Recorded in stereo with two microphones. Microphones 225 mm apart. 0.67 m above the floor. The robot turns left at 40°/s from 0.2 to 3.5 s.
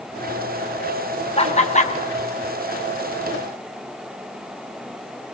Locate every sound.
1.4 s laughter: 25° left (ahead or behind), 0.8 m; by 1.9 s 30° left (ahead or behind), 0.8 m